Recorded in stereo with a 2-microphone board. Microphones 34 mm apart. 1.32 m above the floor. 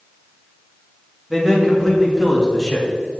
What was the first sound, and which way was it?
A man speaking, 10° right (ahead or behind).